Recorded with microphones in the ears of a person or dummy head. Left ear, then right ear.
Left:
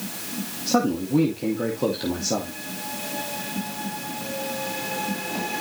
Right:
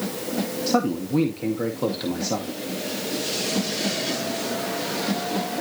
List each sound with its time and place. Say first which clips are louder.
0.7 s a man speaking: left 2 dB; 20° right (ahead or behind), 1.9 m